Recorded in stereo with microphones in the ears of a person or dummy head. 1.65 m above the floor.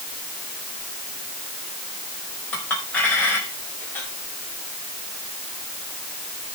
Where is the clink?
5° left (ahead or behind), 5 m.